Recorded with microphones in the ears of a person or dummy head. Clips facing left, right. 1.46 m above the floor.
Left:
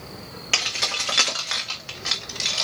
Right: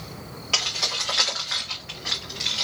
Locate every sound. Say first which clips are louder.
0.5 s keys jangling: left 2 dB; 30° left (ahead or behind), 1.2 m; by 2.6 s 70° left (ahead or behind), 1.8 m